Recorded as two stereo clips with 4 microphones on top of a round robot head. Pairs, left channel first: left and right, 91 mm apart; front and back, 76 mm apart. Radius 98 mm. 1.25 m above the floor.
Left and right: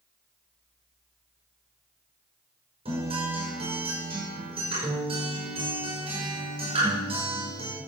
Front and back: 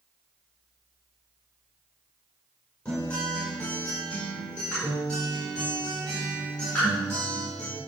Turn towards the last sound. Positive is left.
turn(degrees=-80)